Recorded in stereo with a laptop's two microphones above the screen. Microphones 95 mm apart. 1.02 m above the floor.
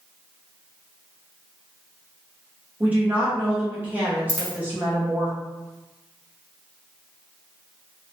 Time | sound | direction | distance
2.8 | a woman speaking | 15° right (ahead or behind) | 0.6 m
4.3 | a dropped coin | 35° left (ahead or behind) | 0.6 m